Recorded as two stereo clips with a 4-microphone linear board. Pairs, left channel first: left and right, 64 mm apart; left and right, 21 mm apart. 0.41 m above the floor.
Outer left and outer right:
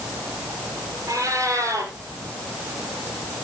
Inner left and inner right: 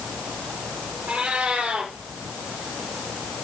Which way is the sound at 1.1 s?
60° right (ahead or behind).